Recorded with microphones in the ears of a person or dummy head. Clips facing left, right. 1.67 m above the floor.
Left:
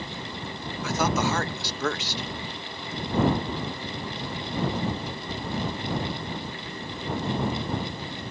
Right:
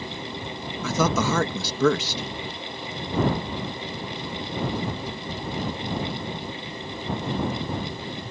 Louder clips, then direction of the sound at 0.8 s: Right 2 dB; 75° right (ahead or behind).